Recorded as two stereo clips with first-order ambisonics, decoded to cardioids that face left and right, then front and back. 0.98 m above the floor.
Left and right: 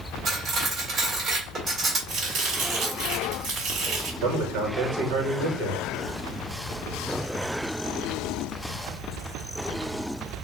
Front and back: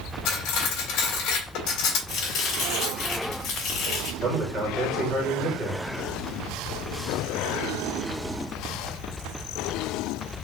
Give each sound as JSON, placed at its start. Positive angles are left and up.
{"t": 0.2, "sound": "cutlery clinking", "azimuth_deg": -25, "distance_m": 2.5}
{"t": 2.1, "sound": "chopping", "azimuth_deg": -45, "distance_m": 2.5}
{"t": 4.2, "sound": "a man speaking", "azimuth_deg": -100, "distance_m": 1.7}